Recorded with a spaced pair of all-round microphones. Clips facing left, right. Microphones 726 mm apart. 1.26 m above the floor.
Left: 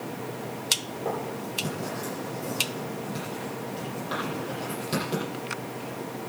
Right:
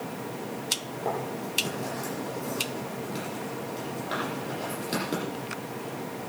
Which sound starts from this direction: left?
Writing, at 1.1 s.